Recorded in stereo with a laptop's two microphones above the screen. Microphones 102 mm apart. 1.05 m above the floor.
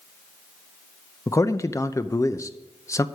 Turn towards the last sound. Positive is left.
turn(degrees=30)  # may be behind; listen again after turning